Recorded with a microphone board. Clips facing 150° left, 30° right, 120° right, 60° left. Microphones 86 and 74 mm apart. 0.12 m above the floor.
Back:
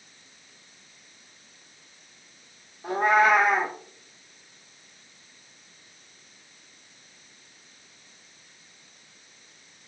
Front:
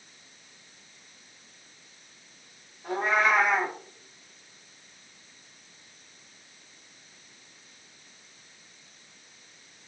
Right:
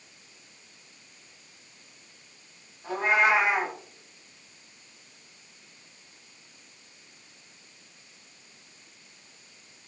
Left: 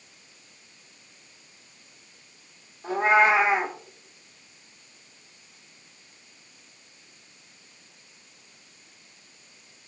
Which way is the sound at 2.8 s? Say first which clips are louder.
Back 5 dB, left 4 dB; 120° left.